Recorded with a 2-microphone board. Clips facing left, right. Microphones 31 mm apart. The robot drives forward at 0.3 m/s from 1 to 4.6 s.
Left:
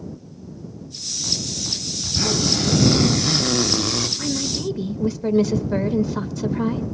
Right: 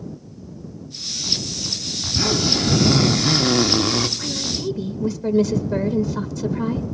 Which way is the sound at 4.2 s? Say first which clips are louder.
Left 1 dB; 10° left (ahead or behind).